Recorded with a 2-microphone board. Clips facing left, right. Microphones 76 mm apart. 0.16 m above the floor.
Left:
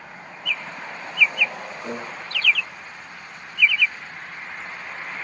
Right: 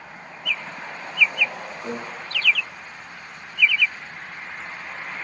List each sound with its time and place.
1.8 s a microwave: 15° right (ahead or behind), 2.5 m